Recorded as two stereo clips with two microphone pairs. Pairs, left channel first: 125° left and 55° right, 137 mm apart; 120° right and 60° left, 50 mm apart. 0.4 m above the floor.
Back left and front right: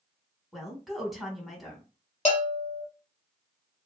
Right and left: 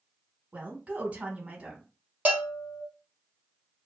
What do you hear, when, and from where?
0.5 s a woman speaking: 35° left, 1.0 m
2.2 s a bell: 110° left, 1.0 m